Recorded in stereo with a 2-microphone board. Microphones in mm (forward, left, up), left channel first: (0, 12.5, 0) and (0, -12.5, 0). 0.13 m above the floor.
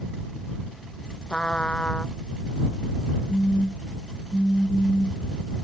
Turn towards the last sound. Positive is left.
turn(degrees=35)  # may be behind; listen again after turning